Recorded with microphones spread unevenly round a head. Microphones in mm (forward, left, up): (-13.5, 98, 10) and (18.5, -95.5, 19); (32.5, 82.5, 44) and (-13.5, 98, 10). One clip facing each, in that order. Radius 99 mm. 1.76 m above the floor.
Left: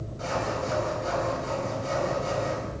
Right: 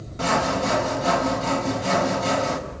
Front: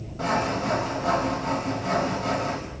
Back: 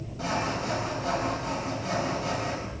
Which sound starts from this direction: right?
Sawing, at 0.2 s.